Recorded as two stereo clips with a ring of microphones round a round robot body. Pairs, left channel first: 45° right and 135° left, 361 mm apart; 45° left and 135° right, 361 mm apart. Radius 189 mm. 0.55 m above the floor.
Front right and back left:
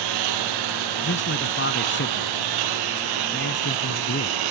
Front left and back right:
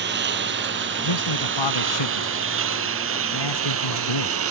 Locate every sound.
0.0 s a lawn mower: 160° left; by 4.5 s 170° left
1.0 s a man speaking: 20° left